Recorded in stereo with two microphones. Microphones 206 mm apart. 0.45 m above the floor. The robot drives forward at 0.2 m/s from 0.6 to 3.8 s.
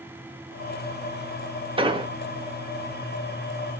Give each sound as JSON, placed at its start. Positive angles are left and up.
{"t": 1.8, "sound": "an explosion", "side_deg": -25, "distance_m": 0.5}